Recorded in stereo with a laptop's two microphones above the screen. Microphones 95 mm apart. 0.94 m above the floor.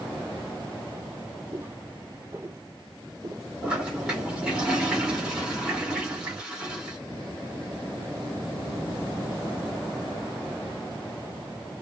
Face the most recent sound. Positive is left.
turn(degrees=-10)  # may be behind; listen again after turning